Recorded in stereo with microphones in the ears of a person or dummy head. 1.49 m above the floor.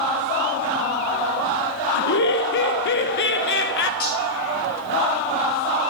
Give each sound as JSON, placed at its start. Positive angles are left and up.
{"t": 1.9, "sound": "laughter", "side_deg": 55, "distance_m": 0.5}
{"t": 4.0, "sound": "cutlery clinking", "side_deg": 40, "distance_m": 1.1}